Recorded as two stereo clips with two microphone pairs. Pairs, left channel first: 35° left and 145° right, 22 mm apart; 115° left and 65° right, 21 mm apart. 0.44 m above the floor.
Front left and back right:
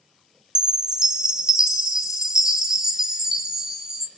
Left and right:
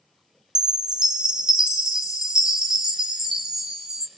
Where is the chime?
95° right, 1.1 m.